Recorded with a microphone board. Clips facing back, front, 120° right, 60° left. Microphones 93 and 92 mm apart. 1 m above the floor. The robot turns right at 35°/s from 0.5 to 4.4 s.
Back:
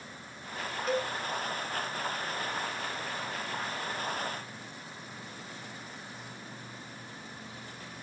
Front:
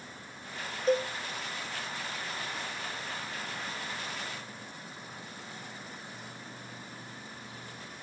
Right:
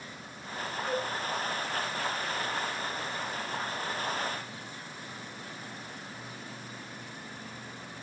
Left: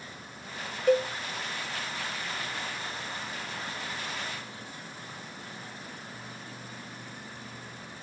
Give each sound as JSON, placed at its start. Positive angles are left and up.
{"t": 0.9, "sound": "a cowbell", "azimuth_deg": 55, "distance_m": 0.9}